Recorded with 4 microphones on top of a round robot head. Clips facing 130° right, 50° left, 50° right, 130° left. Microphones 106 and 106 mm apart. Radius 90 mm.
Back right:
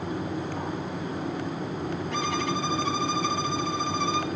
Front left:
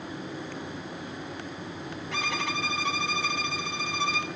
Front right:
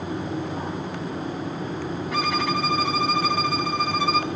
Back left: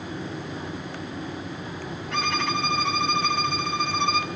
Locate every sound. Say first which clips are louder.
2.1 s a violin: back right 2 dB, front right 1 dB; 35° left, 1.8 m